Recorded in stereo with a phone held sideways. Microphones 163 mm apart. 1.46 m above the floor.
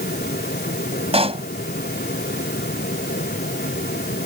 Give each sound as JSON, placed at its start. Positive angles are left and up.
{"t": 0.0, "sound": "a fan", "side_deg": 75}
{"t": 1.1, "sound": "a pop", "side_deg": -35}